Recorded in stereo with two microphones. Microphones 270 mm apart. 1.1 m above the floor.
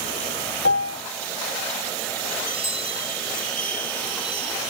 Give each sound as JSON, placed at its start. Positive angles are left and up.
{"t": 0.7, "sound": "a piano", "side_deg": 55}
{"t": 2.4, "sound": "a chime", "side_deg": 70}